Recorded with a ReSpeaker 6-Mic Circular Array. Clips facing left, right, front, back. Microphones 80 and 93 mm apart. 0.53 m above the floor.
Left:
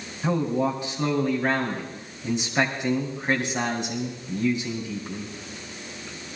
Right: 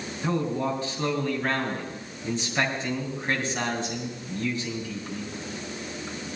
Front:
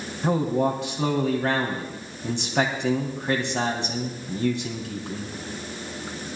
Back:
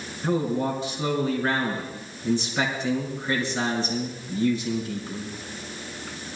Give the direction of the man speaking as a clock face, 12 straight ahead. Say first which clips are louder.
Left 3 dB, front 2 dB; 11 o'clock.